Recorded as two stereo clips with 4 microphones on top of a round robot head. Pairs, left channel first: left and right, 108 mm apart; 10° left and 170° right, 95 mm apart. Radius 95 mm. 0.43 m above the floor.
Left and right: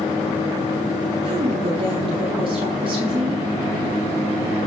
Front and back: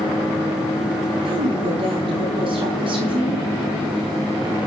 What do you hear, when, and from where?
1.2 s a woman speaking: 135° right, 5 m